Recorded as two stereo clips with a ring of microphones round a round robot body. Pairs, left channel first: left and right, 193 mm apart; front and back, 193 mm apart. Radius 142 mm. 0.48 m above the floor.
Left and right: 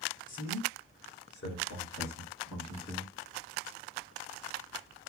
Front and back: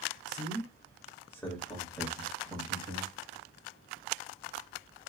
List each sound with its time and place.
0.3 s a man speaking: 50° left, 2 m; by 3.1 s 110° left, 3 m